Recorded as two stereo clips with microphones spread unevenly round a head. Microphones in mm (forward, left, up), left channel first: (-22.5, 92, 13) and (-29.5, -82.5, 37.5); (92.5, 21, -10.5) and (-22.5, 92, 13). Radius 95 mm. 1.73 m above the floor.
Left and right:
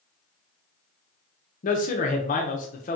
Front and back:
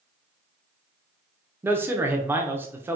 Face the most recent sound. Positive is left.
turn(degrees=105)